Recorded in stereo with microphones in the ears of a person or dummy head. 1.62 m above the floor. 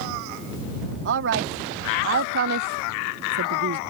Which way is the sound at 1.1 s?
60° right (ahead or behind).